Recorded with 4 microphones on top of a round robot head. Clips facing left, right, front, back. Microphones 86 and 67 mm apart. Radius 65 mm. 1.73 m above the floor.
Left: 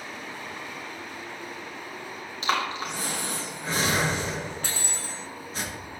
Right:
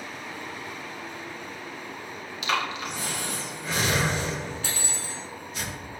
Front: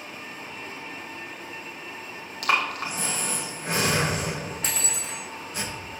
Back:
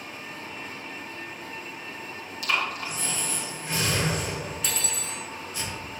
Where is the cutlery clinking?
45° left, 2.5 m.